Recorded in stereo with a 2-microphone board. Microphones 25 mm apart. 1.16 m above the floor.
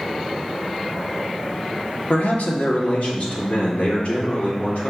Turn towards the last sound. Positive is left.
turn(degrees=75)  # may be behind; listen again after turning